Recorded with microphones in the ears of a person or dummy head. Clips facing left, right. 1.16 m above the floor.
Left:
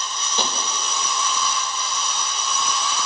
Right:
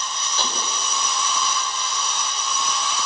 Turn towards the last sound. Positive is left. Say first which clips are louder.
# left 3 dB
turn(degrees=20)  # may be behind; listen again after turning